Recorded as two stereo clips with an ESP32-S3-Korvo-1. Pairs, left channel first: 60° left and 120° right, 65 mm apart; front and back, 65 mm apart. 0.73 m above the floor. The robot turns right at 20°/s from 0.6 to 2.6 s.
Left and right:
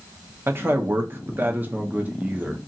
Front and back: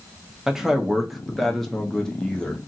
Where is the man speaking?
100° right, 0.6 m; by 2.6 s 60° right, 0.6 m.